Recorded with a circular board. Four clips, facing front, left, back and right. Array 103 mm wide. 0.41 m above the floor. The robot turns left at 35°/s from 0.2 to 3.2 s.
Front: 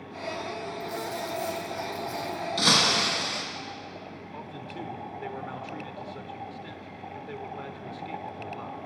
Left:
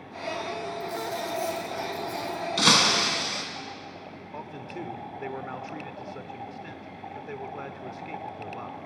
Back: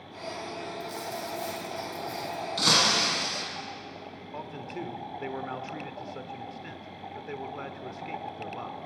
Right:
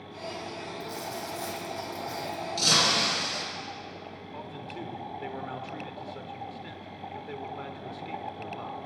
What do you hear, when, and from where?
0.8 s a dropped coin: 65° right, 3.5 m; by 2.5 s 125° right, 3.5 m
2.6 s breaking glass: 90° left, 2 m; by 3.4 s 65° left, 2 m
4.3 s a man speaking: 135° left, 0.9 m